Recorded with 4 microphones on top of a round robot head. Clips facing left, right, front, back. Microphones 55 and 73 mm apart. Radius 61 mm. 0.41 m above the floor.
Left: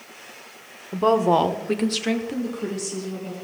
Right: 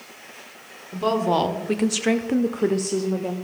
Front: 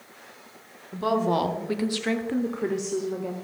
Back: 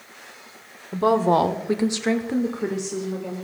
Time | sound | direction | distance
0.9 | a woman speaking | 140° left | 1.1 m